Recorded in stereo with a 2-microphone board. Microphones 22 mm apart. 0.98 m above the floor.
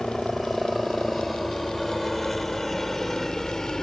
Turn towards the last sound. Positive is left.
turn(degrees=25)  # may be behind; listen again after turning